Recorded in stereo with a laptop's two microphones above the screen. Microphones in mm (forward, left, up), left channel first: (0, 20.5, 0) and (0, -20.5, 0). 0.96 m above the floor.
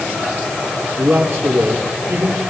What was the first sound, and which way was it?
A man speaking, 75° right (ahead or behind).